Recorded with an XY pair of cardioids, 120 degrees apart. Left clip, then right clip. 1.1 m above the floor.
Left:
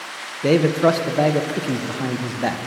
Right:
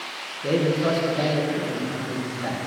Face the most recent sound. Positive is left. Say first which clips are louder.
# left 6 dB
turn(degrees=60)